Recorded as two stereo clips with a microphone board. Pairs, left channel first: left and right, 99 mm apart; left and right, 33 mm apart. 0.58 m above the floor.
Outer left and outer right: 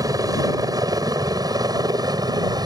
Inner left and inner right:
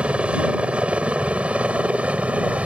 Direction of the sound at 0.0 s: 40° right (ahead or behind).